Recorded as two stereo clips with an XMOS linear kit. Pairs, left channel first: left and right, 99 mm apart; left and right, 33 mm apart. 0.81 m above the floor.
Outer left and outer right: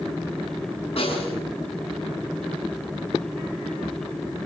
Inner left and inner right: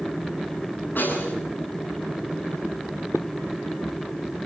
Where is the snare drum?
80° left, 10 m.